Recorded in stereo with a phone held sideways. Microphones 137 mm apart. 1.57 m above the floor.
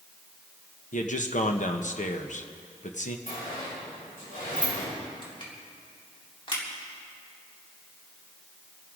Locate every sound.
0.9 s a man speaking: 65° left (ahead or behind), 1.2 m
3.3 s a sliding door: 85° left, 5.5 m
5.2 s crushing: 40° left (ahead or behind), 3.5 m